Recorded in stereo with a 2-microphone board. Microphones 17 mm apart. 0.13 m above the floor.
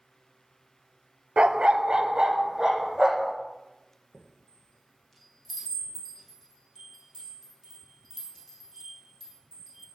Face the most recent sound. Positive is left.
turn(degrees=10)  # may be behind; listen again after turning